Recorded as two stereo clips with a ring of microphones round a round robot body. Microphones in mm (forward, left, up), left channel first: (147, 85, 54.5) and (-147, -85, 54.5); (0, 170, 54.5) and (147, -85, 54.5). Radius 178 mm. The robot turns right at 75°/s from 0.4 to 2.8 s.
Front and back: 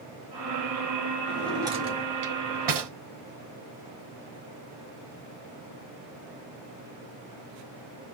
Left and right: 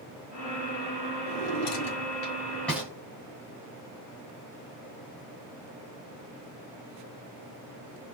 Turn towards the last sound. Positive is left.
turn(degrees=-145)